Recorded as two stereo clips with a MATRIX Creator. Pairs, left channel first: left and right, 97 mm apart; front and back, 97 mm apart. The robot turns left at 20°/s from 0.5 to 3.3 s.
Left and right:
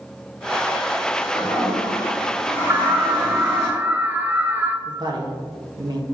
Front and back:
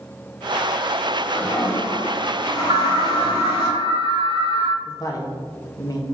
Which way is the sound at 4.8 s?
50° right.